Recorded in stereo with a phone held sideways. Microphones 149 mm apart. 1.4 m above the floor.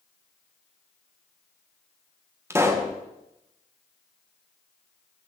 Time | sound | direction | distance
2.5 | a pop | 15° right (ahead or behind) | 1.6 m